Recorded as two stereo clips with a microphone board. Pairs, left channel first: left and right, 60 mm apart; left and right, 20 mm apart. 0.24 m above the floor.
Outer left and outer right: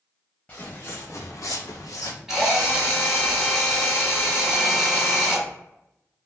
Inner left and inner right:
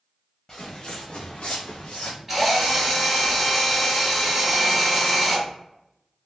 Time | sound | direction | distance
0.5 | footsteps | 30° left (ahead or behind) | 0.7 m
2.3 | a drill | 10° right (ahead or behind) | 1.0 m